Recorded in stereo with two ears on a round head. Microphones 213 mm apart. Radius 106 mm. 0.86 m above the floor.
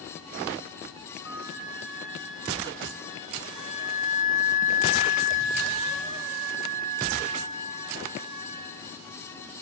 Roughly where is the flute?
Centre.